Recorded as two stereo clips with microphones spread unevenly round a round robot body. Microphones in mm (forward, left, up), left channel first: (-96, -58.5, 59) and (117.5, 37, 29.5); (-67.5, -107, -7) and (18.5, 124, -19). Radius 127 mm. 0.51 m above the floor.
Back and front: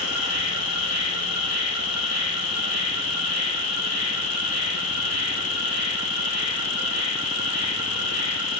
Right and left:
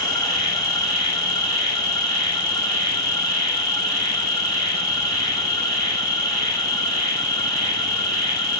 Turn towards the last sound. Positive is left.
turn(degrees=175)